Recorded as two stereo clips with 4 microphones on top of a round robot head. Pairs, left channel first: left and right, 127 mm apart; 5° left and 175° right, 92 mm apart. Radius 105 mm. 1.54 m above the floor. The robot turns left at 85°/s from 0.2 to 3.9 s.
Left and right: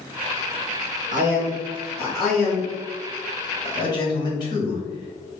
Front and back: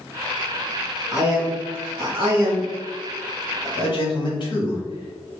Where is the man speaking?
85° right, 1.5 m; by 5.4 s 35° left, 1.5 m.